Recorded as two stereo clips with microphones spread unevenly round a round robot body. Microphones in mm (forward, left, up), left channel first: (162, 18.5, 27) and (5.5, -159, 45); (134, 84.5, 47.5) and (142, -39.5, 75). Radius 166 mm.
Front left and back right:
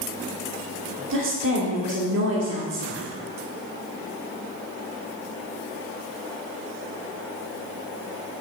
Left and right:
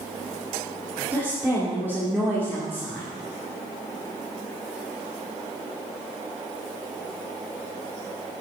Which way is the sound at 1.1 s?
170° right.